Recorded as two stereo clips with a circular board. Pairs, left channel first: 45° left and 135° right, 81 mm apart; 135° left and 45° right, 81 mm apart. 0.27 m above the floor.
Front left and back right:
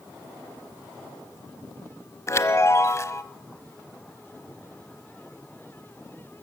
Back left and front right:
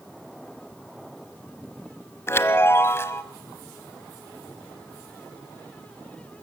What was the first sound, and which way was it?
A chime, 85° left.